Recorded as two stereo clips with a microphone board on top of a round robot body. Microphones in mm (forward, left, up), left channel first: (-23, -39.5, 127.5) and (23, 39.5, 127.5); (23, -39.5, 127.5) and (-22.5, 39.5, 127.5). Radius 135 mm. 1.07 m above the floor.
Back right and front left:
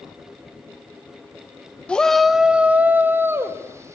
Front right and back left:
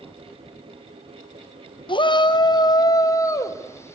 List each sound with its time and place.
1.9 s a shout: 45° right, 1.4 m; by 4.0 s straight ahead, 3 m